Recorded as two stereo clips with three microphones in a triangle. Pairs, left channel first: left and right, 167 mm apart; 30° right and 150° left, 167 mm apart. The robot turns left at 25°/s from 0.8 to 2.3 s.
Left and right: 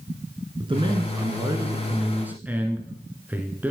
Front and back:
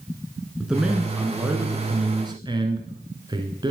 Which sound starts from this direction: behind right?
A man speaking, at 0.6 s.